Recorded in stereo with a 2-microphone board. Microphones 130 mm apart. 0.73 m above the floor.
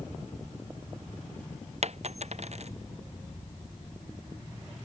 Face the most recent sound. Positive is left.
turn(degrees=-60)  # may be behind; listen again after turning